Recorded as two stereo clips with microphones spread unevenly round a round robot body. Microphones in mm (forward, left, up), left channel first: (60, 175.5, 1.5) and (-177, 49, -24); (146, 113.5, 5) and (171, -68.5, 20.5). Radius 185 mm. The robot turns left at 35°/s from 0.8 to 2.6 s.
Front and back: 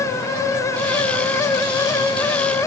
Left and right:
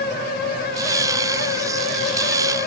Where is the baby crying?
I don't hear a baby crying.